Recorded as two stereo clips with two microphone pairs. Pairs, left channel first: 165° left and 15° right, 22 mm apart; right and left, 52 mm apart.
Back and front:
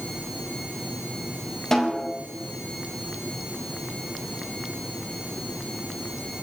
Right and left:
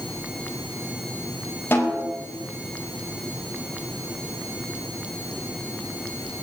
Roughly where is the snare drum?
Behind right.